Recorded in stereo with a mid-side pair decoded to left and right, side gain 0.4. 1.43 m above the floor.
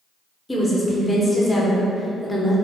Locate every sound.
0.5 s a woman speaking: 15° left, 0.9 m